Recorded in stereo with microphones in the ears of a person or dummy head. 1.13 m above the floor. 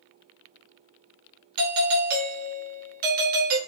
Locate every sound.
1.6 s a doorbell: 45° right (ahead or behind), 0.9 m